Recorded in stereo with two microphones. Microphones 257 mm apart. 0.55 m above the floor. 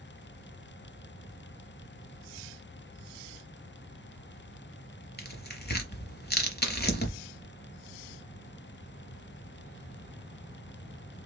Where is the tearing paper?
40° left (ahead or behind), 1.0 m.